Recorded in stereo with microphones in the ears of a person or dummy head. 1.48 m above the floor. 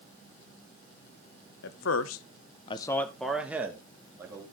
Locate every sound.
1.6 s a man speaking: 65° left (ahead or behind), 1.5 m; by 4.4 s 20° right (ahead or behind), 3 m